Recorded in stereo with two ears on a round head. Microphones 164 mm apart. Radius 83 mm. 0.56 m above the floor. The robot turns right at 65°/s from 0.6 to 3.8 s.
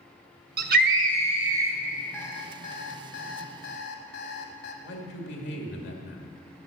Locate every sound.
0.6 s a scream: 85° right, 1.1 m; by 1.8 s 10° right, 1.1 m
2.1 s an alarm clock: 10° left, 1.5 m; by 4.7 s 120° left, 1.5 m
4.8 s a man speaking: 65° left (ahead or behind), 1.8 m